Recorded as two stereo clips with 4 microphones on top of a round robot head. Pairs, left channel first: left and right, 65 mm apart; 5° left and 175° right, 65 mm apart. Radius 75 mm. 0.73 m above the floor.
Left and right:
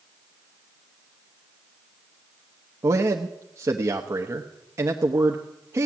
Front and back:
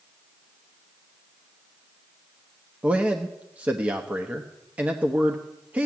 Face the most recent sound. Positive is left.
turn(degrees=-115)